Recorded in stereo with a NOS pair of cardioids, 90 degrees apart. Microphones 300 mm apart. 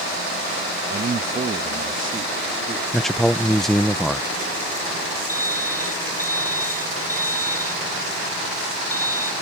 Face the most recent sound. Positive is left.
turn(degrees=-10)